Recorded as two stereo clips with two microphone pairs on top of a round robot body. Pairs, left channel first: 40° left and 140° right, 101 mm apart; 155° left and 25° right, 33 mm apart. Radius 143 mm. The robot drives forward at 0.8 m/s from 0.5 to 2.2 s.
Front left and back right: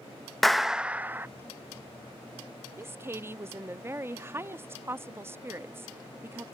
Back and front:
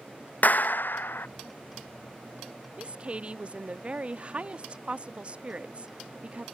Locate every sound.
0.4 s a clap: 125° left; by 1.3 s 150° left
2.8 s a woman speaking: 75° right